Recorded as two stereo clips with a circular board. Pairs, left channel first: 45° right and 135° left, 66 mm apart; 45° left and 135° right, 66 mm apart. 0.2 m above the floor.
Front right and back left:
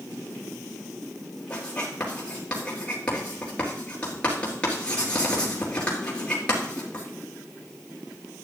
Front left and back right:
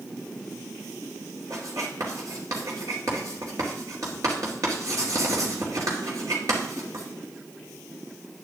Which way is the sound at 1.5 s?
115° right.